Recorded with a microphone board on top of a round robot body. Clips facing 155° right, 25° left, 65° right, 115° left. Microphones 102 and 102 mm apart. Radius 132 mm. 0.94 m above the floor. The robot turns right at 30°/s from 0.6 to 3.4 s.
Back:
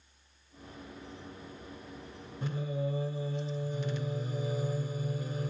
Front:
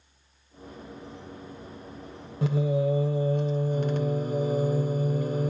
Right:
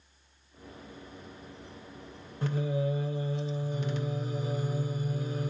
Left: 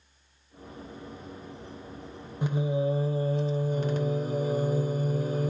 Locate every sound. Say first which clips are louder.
2.4 s singing: front 10 dB, left 3 dB; 35° left, 0.7 m; by 5.5 s 65° left, 0.7 m